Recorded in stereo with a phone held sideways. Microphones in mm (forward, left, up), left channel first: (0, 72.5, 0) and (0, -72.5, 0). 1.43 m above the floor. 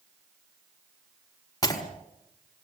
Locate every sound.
1.6 s breaking glass: 25° left (ahead or behind), 4.5 m